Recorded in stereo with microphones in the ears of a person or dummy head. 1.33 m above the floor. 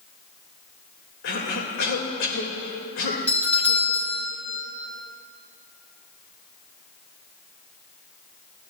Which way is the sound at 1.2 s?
70° left (ahead or behind).